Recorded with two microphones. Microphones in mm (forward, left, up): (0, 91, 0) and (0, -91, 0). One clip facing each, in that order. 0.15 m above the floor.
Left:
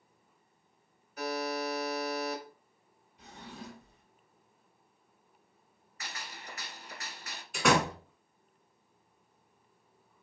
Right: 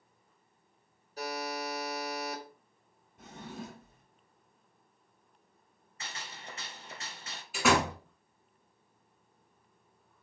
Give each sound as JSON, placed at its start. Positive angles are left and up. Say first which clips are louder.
{"t": 1.2, "sound": "a buzzer", "louder": "left 3 dB", "side_deg": -35, "distance_m": 1.3}
{"t": 3.2, "sound": "a drawer", "louder": "right 3 dB", "side_deg": -50, "distance_m": 1.4}
{"t": 6.0, "sound": "a gunshot", "louder": "even", "side_deg": -25, "distance_m": 0.7}
{"t": 7.5, "sound": "a door slam", "louder": "even", "side_deg": -5, "distance_m": 1.2}